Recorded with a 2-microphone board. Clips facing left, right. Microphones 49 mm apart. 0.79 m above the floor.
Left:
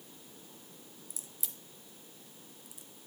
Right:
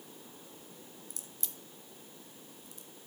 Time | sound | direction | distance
1.1 | a crack | 5° left (ahead or behind) | 0.8 m